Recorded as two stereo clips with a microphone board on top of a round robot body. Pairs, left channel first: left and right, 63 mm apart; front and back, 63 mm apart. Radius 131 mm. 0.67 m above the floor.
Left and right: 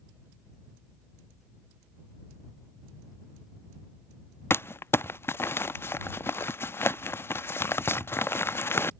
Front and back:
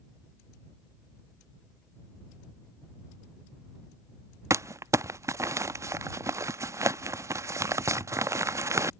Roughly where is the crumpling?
Behind left.